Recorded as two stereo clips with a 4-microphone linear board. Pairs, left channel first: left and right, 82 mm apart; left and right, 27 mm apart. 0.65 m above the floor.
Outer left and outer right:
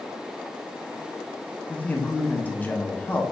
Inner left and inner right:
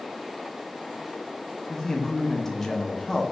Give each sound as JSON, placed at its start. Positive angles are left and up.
{"t": 1.7, "sound": "a man speaking", "side_deg": 20, "distance_m": 0.6}